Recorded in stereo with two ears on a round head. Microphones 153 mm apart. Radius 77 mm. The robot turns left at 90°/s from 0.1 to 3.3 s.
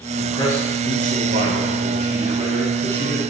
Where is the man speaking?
50° left, 3 m; by 3.2 s 140° left, 3 m.